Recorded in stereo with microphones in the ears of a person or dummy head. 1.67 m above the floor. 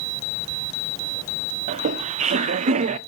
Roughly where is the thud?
I don't hear a thud.